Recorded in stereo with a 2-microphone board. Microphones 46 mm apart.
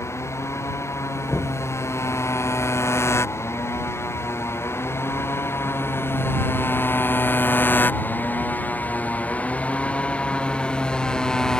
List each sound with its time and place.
0.0 s a motorcycle: 85° left; by 11.6 s 15° left (ahead or behind)
1.3 s knocking: 50° left (ahead or behind)